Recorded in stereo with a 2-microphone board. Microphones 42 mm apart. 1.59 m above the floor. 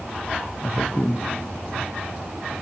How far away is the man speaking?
About 0.5 m.